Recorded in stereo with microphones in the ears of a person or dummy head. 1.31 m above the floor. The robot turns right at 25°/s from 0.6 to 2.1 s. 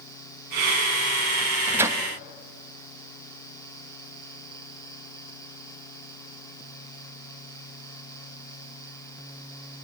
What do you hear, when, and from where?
1.4 s a microwave: 10° right (ahead or behind), 0.9 m; by 2.0 s 25° right (ahead or behind), 0.9 m